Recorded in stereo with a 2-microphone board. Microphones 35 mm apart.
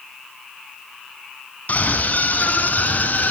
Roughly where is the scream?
Left.